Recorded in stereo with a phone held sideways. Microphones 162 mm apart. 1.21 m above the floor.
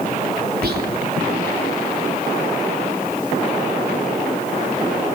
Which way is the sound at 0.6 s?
80° right.